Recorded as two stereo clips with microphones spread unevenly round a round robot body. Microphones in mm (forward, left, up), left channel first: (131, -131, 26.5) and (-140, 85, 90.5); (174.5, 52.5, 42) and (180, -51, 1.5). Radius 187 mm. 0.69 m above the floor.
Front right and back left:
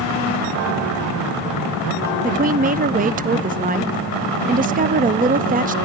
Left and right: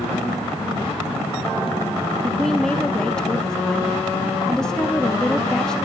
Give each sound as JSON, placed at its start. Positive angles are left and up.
{"t": 2.2, "sound": "a woman speaking", "azimuth_deg": -150, "distance_m": 0.7}